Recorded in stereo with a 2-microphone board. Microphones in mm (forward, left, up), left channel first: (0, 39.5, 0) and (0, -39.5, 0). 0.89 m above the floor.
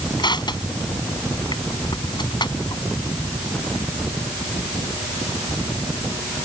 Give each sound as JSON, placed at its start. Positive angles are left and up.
{"t": 0.2, "sound": "crushing", "side_deg": 70}